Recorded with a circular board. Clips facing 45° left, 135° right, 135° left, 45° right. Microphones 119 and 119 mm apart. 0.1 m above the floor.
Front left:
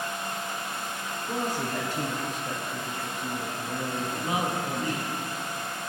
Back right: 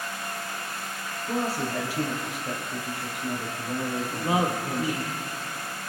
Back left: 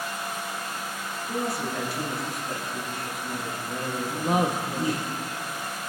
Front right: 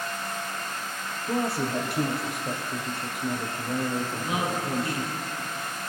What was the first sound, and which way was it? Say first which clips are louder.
A woman speaking: back right 2 dB, front right 3 dB; 55° right.